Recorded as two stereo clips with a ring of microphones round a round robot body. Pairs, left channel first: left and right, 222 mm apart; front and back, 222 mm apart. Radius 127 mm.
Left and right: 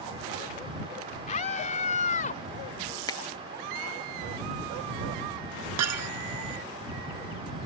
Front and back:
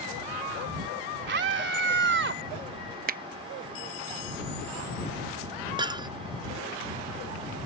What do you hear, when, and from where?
1.3 s a scream: 150° left
3.1 s a finger snap: 155° left
5.8 s breaking glass: 105° right